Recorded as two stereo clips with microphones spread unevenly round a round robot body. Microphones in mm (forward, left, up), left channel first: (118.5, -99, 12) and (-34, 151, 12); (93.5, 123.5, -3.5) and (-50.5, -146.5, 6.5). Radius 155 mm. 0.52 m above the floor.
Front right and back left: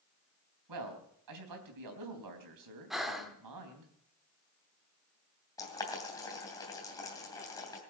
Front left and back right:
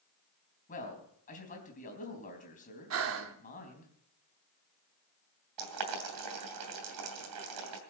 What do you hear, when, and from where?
0.7 s a man speaking: 125° left, 3.5 m
2.9 s breathing: 150° right, 1.1 m
5.6 s boiling: 135° right, 3 m